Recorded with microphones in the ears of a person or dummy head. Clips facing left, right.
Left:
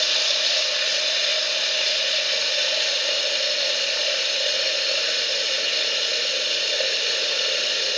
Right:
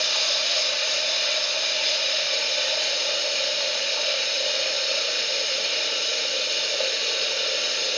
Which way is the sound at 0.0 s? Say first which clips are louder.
Left 1 dB; 20° left (ahead or behind).